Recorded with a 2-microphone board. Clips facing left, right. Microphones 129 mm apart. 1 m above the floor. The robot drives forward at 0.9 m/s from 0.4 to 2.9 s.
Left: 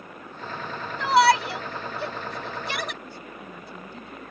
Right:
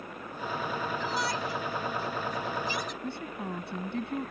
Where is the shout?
90° left; by 2.9 s 75° left (ahead or behind).